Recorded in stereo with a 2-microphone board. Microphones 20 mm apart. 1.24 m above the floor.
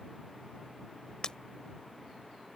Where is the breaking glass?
35° left (ahead or behind).